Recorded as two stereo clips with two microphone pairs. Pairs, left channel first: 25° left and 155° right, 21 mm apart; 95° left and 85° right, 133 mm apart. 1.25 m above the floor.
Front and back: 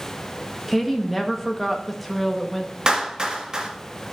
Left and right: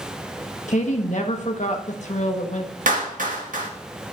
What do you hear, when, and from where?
0.7 s a woman speaking: 120° left, 1.2 m
2.9 s a clap: 95° right, 1.7 m